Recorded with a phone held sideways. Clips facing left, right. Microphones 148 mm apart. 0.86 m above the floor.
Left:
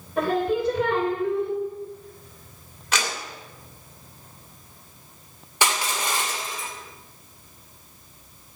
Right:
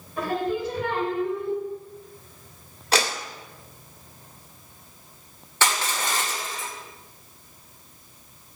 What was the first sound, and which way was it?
Singing, 65° left (ahead or behind).